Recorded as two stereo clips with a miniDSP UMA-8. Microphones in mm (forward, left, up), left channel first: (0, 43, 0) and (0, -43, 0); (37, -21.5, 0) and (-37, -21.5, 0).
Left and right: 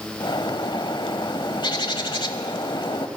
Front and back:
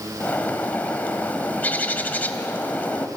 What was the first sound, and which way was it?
A bird, 65° left.